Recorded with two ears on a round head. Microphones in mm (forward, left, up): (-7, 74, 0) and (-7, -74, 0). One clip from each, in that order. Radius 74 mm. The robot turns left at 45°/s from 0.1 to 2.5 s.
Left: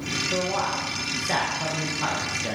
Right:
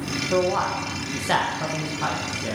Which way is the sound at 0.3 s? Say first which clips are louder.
Right 6 dB; 80° right.